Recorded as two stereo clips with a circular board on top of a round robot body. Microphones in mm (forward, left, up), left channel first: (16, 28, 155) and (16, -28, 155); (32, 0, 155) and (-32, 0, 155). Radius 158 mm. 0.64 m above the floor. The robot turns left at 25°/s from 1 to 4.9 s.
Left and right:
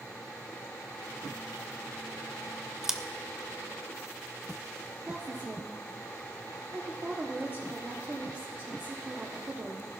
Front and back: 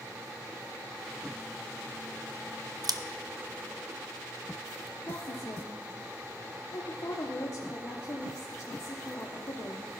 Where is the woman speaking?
35° right, 1.5 m.